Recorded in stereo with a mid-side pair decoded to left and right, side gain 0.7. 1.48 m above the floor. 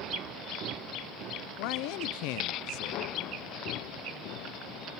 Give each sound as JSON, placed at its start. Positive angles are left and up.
{"t": 1.6, "sound": "a man speaking", "azimuth_deg": 70, "distance_m": 0.5}